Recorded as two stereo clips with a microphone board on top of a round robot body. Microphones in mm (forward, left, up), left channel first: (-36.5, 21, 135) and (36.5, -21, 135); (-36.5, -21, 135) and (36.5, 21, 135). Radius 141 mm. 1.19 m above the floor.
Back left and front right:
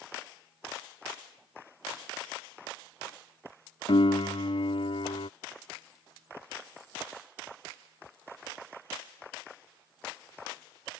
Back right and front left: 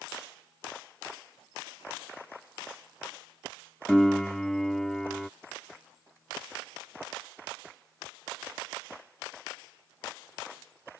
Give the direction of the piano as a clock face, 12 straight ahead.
8 o'clock.